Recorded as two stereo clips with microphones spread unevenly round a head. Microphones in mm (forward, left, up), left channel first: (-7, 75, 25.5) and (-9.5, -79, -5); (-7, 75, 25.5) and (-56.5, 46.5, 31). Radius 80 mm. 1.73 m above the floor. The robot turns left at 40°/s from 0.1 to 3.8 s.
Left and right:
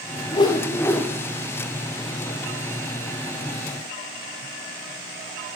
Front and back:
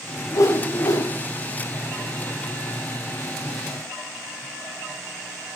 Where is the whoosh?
50° left, 0.7 m; by 1.1 s 20° left, 0.7 m.